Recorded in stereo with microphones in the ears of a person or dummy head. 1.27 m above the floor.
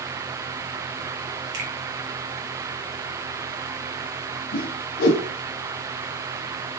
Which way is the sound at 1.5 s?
55° right (ahead or behind).